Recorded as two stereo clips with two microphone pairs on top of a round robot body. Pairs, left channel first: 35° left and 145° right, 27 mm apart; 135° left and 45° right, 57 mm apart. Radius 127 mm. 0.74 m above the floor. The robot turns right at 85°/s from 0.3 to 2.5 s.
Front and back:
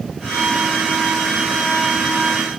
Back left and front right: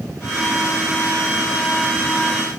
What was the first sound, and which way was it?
Only background noise.